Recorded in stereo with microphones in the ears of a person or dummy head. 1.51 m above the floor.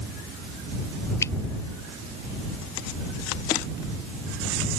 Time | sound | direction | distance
1.2 | a finger snap | 15° left (ahead or behind) | ?